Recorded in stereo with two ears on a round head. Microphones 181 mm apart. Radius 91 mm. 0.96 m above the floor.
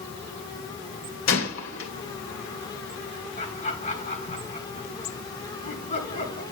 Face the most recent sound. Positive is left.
turn(degrees=35)  # may be behind; listen again after turning